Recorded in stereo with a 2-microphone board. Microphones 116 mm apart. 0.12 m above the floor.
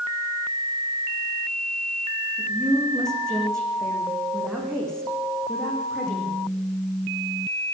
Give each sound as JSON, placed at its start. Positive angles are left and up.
{"t": 2.4, "sound": "a woman speaking", "side_deg": 5, "distance_m": 8.5}